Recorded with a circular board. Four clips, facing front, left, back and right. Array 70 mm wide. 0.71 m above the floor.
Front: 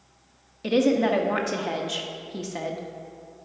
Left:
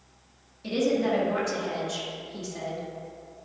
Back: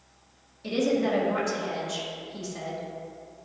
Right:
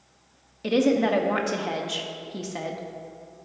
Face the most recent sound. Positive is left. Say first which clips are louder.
# right 4 dB, front 4 dB
turn(degrees=-45)